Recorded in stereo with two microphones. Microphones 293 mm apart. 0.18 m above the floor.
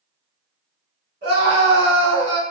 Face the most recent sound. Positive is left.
turn(degrees=-45)  # may be behind; listen again after turning